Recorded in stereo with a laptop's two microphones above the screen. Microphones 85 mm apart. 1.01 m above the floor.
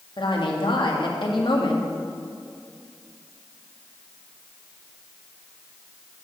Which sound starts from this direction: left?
A woman speaking, at 0.2 s.